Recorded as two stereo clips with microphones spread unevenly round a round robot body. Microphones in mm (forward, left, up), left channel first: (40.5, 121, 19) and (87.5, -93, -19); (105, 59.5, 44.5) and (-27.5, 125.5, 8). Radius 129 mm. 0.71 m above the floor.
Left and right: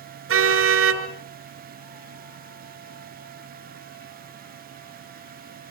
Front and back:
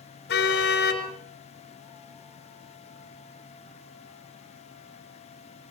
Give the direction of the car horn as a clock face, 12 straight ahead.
2 o'clock.